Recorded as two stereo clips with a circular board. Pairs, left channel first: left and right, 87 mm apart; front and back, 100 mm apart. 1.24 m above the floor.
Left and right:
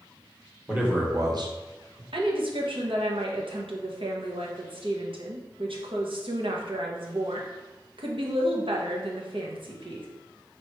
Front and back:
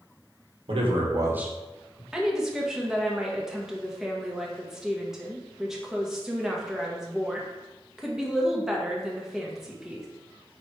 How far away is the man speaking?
About 1.3 m.